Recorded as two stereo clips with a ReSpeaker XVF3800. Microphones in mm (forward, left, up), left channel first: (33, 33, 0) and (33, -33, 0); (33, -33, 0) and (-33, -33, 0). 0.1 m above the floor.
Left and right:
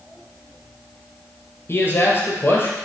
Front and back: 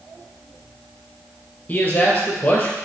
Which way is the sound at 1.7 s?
55° left.